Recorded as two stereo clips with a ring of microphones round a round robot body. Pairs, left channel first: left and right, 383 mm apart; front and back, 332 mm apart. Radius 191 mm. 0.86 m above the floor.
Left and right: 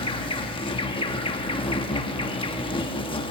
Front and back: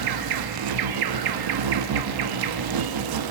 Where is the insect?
165° left, 1.0 m.